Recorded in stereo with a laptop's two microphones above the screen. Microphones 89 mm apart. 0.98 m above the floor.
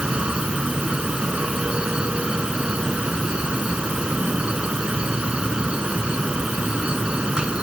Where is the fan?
10° right (ahead or behind).